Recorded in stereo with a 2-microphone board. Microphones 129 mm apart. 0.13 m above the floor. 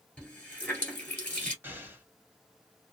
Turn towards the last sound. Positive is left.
turn(degrees=-15)  # may be behind; listen again after turning